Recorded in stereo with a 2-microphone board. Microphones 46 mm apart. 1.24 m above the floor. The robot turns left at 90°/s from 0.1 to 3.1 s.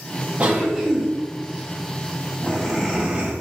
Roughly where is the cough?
Behind right.